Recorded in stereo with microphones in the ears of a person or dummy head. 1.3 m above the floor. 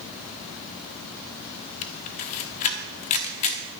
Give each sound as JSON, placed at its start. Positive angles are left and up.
{"t": 1.8, "sound": "a camera shutter", "side_deg": 40, "distance_m": 1.2}